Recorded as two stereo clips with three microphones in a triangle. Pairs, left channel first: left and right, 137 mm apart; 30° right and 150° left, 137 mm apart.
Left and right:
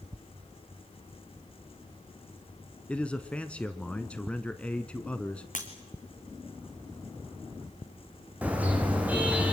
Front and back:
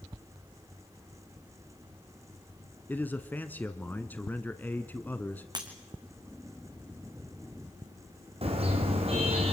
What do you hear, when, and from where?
2.9 s a man speaking: 20° left, 1.1 m
5.5 s breaking glass: 95° left, 3 m
8.4 s a car horn: 170° right, 3.5 m